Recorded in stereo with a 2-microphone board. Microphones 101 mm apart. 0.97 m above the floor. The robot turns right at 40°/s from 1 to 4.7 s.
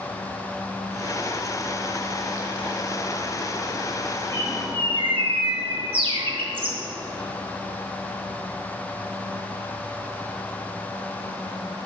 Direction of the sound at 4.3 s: 55° right (ahead or behind).